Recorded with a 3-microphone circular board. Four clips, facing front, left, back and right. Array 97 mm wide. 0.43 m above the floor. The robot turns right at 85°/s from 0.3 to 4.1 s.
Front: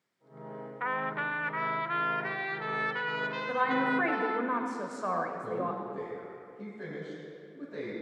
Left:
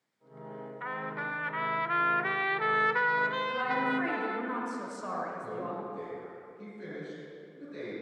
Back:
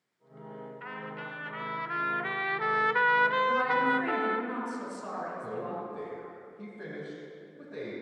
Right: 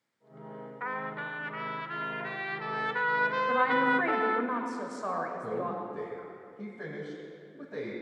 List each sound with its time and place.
0.8 s a trumpet: 20° right, 0.6 m; by 4.5 s 100° right, 0.6 m
3.5 s a woman speaking: 80° right, 2 m; by 5.8 s 30° right, 2 m
5.4 s a man speaking: 95° right, 3 m